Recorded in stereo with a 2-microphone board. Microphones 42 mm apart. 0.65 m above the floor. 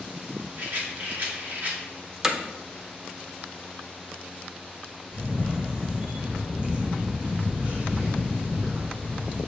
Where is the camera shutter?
40° right (ahead or behind), 3 m.